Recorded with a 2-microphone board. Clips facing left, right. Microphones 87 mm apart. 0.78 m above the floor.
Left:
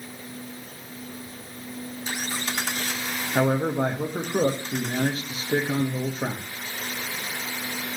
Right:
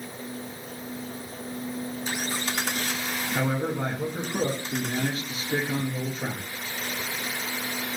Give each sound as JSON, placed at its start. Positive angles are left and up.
{"t": 3.4, "sound": "a man speaking", "side_deg": 35, "distance_m": 1.0}